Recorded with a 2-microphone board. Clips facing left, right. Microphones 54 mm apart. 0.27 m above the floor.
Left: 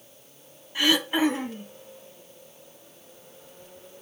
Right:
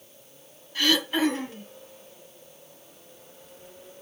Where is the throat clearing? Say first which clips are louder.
Left 1 dB; 20° left (ahead or behind), 1.1 m.